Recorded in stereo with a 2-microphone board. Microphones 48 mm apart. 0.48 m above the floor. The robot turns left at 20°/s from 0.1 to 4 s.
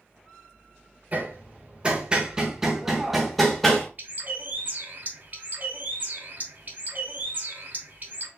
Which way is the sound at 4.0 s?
45° right (ahead or behind).